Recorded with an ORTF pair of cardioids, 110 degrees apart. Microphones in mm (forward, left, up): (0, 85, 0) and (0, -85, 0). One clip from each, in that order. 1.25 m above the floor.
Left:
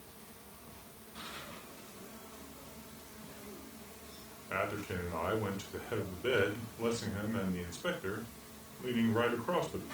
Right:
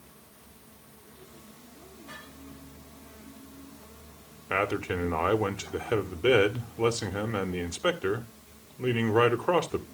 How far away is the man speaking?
About 1.6 m.